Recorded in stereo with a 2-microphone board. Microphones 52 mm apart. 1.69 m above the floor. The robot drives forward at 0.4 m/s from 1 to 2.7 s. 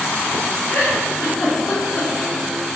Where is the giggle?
65° left (ahead or behind), 1.2 m; by 2.1 s 50° left (ahead or behind), 1.4 m.